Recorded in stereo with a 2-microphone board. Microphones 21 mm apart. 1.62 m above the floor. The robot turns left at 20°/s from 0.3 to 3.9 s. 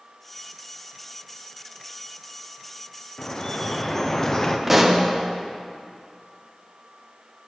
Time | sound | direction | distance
3.2 | dripping | 35° left (ahead or behind) | 0.7 m
4.7 | a pop | 10° right (ahead or behind) | 0.9 m